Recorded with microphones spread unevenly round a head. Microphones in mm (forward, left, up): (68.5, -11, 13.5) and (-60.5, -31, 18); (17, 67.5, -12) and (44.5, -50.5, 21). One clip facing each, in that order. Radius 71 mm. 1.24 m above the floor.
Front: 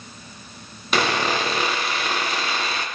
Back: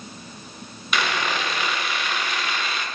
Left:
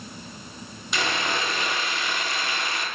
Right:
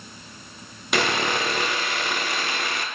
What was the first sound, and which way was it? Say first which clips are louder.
Sawing: front 4 dB, right 4 dB; 50° right.